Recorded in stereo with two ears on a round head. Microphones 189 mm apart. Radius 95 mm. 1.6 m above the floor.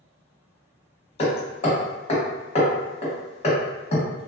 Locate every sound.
1.2 s hammering: 30° left (ahead or behind), 0.9 m